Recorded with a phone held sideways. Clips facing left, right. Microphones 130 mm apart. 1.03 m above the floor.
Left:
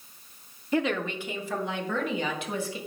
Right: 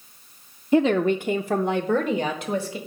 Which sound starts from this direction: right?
A woman speaking, at 0.7 s.